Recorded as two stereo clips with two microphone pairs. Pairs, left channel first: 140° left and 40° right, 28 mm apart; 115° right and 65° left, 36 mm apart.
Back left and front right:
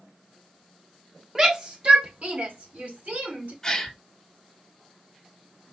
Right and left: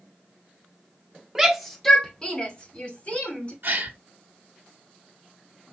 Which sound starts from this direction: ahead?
A shout, at 1.4 s.